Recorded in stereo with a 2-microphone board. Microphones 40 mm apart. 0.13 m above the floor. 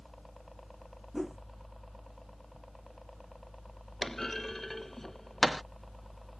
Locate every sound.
0.0 s a helicopter: centre (ahead or behind)
1.1 s a whoosh: 10° right (ahead or behind)
4.0 s a clunk: 10° left (ahead or behind)